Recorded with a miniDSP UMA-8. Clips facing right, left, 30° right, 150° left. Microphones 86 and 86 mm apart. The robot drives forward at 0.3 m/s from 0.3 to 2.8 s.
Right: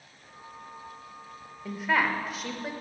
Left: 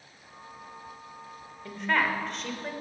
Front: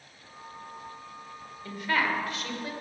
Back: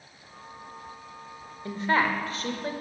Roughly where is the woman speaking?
Behind.